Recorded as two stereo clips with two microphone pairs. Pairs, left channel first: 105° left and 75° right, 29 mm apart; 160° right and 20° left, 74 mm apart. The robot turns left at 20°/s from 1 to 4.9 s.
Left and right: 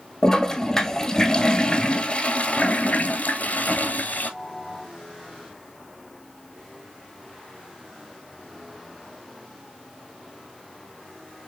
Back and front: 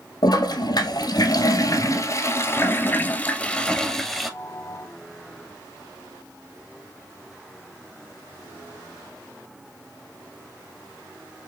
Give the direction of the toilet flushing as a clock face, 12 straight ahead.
6 o'clock.